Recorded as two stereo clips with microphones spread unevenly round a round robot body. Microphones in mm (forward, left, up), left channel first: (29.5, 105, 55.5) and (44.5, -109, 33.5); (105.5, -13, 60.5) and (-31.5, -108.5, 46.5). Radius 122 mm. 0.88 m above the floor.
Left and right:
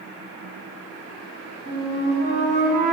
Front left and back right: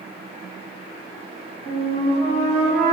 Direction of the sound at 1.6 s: 120° left.